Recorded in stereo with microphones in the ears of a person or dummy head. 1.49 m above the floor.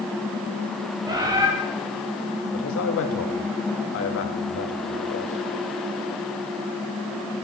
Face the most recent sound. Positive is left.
turn(degrees=65)  # may be behind; listen again after turning